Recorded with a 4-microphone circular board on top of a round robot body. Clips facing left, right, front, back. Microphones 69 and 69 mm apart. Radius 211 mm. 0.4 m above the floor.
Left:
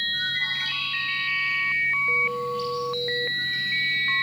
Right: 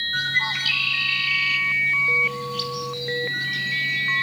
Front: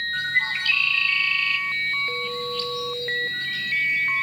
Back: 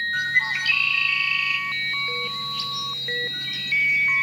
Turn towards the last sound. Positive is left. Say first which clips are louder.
# right 9 dB, back 1 dB
turn(degrees=-100)